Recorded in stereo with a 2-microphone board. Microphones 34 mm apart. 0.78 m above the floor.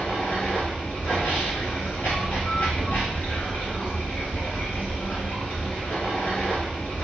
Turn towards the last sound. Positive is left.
turn(degrees=60)  # may be behind; listen again after turning